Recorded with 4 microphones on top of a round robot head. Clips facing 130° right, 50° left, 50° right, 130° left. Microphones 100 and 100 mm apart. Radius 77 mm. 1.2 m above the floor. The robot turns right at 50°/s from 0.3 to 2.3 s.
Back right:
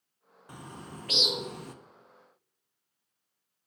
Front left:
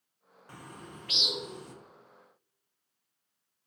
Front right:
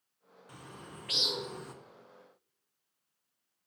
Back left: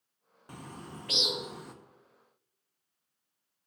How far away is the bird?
About 0.6 m.